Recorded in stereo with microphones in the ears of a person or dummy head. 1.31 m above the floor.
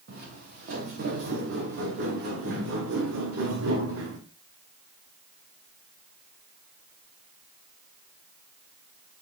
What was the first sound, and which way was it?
Footsteps, 55° right (ahead or behind).